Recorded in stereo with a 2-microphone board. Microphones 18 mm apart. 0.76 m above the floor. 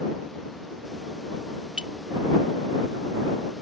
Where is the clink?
75° right (ahead or behind).